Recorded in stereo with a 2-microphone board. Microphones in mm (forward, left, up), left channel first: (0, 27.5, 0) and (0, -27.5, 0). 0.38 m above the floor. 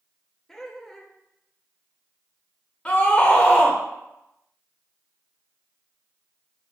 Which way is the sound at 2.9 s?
20° left (ahead or behind).